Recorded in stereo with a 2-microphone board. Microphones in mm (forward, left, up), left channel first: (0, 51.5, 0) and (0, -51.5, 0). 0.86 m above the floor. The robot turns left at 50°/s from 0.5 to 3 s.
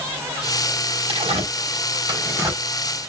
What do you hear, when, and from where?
1.1 s tearing paper: 80° right, 4 m; by 2.6 s 20° right (ahead or behind), 4 m